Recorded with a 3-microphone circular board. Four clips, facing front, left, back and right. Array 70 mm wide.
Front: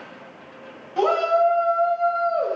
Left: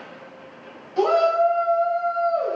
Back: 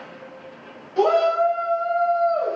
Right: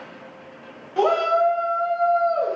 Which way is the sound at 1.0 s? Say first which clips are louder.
Left 1 dB, back 1 dB; 60° right.